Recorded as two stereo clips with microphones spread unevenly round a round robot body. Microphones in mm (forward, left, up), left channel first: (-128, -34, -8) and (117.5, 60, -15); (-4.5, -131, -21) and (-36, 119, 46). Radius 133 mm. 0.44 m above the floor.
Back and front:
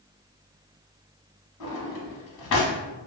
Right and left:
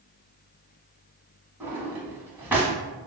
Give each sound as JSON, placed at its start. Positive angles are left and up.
{"t": 1.6, "sound": "a drawer", "azimuth_deg": 180, "distance_m": 0.9}